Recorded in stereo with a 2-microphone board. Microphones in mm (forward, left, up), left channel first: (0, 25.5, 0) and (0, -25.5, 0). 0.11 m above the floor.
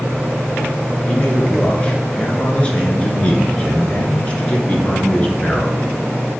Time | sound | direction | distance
1.1 | a man speaking | 25° left (ahead or behind) | 1.3 m